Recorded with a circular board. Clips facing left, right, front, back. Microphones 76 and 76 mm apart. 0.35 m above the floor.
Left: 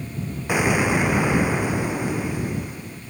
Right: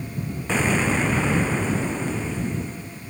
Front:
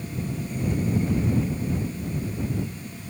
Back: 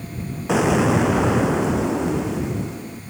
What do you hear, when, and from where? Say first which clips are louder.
0.5 s an explosion: left 2 dB, back 11 dB; 170° left